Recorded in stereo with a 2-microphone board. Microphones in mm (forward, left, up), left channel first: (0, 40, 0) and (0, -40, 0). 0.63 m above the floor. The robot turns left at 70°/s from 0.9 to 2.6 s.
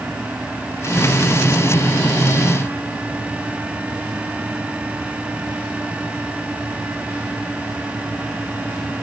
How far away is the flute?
No flute in this recording.